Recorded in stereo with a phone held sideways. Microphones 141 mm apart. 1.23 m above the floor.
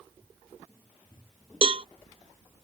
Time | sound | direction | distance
1.6 | a cowbell | 40° right (ahead or behind) | ?